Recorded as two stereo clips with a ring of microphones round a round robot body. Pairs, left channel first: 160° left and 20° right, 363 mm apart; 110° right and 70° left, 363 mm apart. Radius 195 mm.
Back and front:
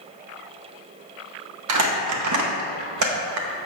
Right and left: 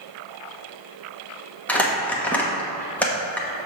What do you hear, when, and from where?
1.7 s crumpling: 30° right, 1.2 m